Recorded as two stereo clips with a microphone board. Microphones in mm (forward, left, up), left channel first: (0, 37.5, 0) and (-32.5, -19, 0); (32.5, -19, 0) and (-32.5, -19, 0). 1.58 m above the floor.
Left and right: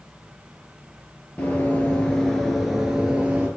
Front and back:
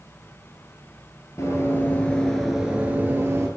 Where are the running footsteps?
10° left, 2 m; by 3.5 s straight behind, 2.0 m.